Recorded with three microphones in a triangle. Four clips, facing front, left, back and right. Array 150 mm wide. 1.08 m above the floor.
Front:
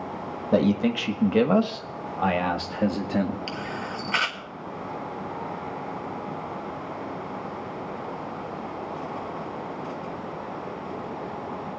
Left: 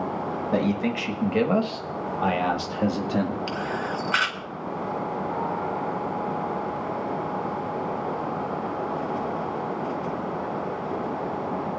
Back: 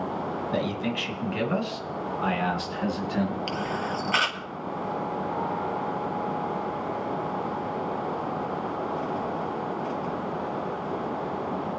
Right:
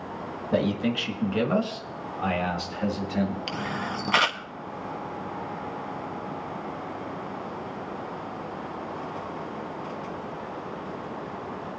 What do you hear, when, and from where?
0.5 s a man speaking: straight ahead, 1.7 m; by 3.4 s 45° left, 2.5 m
3.5 s a camera shutter: 95° right, 1.4 m